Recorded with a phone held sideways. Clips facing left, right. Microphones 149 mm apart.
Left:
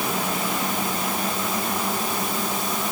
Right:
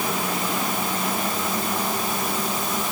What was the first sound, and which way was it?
Only background noise.